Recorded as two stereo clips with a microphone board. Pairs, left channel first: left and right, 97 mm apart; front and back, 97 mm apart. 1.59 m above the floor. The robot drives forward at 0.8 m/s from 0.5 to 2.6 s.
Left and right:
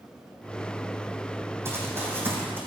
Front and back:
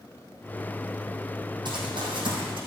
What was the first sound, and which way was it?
Running footsteps, 150° right.